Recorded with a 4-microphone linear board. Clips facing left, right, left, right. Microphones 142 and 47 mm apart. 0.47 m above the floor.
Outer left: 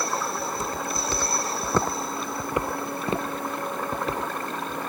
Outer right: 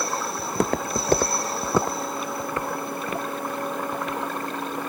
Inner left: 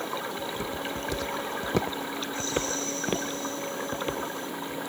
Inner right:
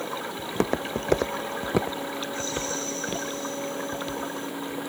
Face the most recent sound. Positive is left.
turn(degrees=35)  # may be behind; listen again after turning